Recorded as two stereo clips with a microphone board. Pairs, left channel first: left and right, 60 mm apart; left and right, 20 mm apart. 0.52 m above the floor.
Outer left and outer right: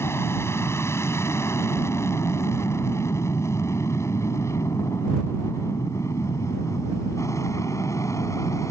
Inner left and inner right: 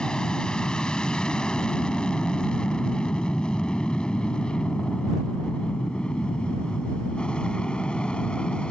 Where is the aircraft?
45° left (ahead or behind); by 8.7 s 60° left (ahead or behind).